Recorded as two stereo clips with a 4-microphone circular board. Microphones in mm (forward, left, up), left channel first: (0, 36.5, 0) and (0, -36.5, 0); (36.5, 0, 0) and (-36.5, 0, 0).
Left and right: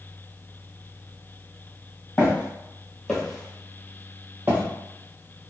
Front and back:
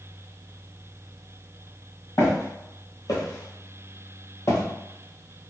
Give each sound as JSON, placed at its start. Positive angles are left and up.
{"t": 2.2, "sound": "footsteps", "azimuth_deg": 35, "distance_m": 1.5}